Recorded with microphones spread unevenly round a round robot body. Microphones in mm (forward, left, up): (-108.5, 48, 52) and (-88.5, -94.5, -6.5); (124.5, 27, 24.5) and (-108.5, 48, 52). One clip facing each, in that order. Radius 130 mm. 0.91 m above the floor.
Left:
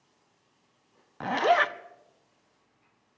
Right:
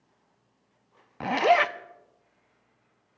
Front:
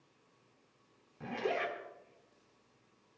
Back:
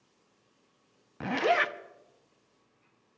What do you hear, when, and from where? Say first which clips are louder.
1.2 s a zipper: right 2 dB, back 7 dB; 165° right, 0.6 m